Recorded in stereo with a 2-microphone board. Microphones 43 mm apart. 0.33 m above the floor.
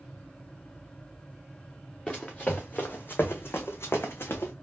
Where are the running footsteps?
25° left (ahead or behind), 1.5 m; by 4.5 s 60° left (ahead or behind), 1.3 m.